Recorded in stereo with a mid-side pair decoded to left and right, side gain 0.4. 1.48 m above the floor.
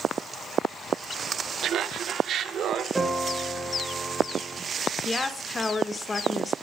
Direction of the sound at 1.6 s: 70° right.